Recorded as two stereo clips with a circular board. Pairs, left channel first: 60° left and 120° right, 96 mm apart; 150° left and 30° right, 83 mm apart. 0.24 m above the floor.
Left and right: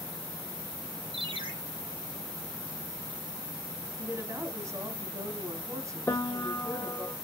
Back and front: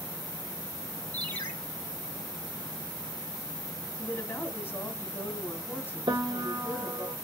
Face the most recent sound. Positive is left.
turn(degrees=-5)